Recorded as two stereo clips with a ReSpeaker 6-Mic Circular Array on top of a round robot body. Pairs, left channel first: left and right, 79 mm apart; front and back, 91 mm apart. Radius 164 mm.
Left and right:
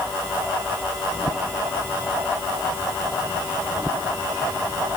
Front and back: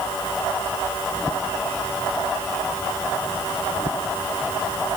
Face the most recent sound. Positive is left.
No sound to turn to.